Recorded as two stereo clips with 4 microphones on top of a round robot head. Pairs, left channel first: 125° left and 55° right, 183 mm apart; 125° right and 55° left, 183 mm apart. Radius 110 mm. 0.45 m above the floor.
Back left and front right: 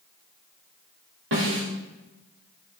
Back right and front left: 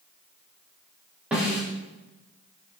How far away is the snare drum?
About 9.5 m.